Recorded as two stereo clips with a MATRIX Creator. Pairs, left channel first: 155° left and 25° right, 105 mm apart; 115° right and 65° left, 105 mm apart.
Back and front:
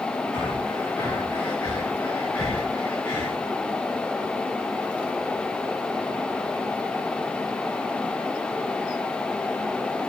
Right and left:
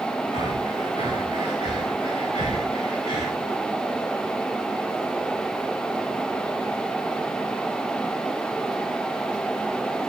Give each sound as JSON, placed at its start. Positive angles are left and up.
{"t": 0.3, "sound": "breathing", "azimuth_deg": -130, "distance_m": 4.0}